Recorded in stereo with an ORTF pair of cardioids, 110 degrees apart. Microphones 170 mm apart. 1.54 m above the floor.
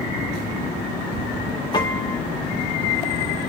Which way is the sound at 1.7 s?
25° left.